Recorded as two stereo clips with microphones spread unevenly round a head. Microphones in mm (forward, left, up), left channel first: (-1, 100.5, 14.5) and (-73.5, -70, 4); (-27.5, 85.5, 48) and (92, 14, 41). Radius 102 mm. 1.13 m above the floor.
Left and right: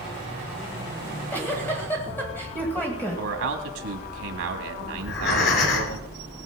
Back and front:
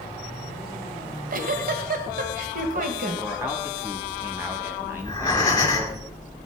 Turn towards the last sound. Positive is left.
turn(degrees=85)